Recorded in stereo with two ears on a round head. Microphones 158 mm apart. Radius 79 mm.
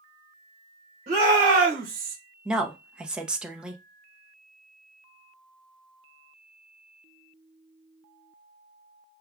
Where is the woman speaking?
5° right (ahead or behind), 0.8 m.